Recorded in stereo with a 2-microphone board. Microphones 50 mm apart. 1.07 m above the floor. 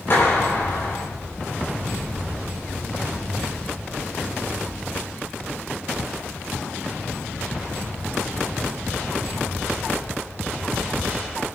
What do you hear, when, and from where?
0.1 s a clap: 50° left (ahead or behind), 9 m